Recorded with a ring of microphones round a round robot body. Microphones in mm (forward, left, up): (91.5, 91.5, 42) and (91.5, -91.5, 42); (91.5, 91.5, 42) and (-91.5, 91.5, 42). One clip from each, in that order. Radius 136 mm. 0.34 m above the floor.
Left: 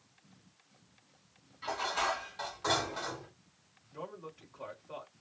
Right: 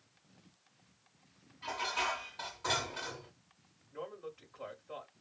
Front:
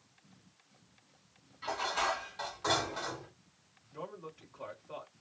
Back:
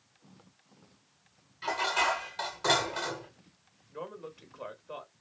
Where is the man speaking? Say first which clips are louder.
Even, back 3 dB; 175° right, 1.6 m.